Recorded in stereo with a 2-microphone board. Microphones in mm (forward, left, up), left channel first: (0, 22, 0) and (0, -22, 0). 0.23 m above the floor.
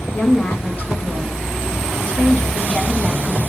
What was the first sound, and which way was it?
A woman speaking, 35° left (ahead or behind).